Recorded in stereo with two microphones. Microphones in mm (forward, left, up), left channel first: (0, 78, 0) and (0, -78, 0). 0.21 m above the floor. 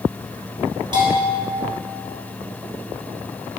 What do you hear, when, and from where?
0.9 s a bell: 30° right (ahead or behind), 2.5 m